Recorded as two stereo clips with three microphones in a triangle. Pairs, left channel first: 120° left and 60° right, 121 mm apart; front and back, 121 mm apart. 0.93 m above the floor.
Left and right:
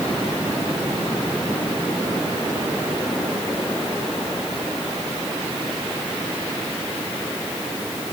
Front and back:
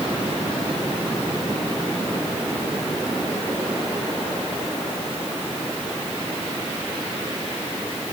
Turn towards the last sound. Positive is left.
No sound to turn to.